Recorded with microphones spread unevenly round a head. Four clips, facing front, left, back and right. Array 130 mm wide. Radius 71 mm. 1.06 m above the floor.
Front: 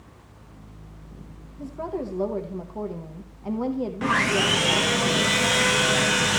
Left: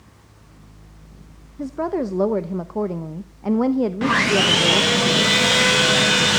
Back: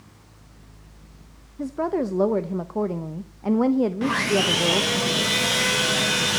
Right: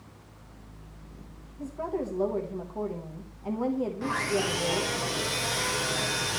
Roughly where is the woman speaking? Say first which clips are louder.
Left 9 dB, back 6 dB; behind left.